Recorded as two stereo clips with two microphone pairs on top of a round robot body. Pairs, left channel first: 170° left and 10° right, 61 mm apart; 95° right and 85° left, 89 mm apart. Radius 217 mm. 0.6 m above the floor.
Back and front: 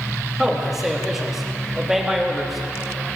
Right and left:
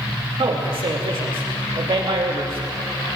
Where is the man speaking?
75° left, 2.5 m.